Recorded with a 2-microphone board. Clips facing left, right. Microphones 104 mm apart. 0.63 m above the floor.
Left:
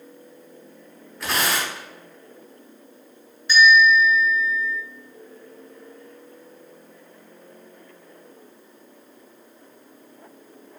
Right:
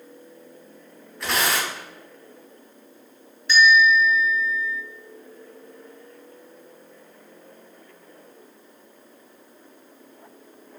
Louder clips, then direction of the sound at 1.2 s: Even; centre (ahead or behind).